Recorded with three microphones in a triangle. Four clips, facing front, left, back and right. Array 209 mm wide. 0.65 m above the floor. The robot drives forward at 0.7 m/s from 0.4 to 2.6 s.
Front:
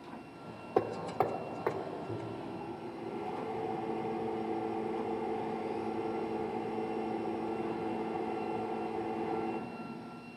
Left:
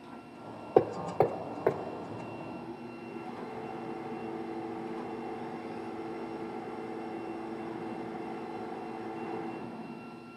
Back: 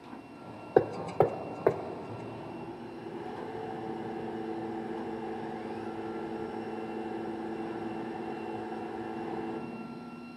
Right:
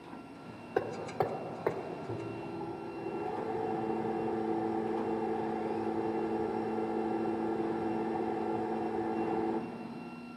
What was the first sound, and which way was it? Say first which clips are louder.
Hammering: left 7 dB, back 6 dB; 130° left.